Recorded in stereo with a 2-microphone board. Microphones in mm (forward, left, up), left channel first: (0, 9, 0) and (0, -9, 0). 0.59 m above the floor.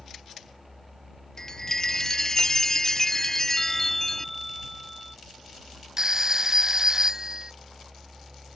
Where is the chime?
20° left (ahead or behind).